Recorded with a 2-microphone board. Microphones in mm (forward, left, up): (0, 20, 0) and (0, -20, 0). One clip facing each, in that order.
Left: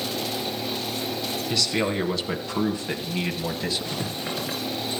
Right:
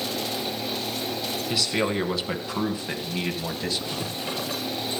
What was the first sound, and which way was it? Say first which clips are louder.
A man speaking: even; 5° right (ahead or behind).